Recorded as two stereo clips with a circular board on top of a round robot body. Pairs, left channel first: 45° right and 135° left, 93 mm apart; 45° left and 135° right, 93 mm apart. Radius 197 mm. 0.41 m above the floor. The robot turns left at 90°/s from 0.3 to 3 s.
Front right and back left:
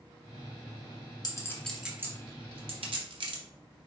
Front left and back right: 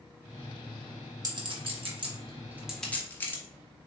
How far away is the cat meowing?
No cat meowing in this recording.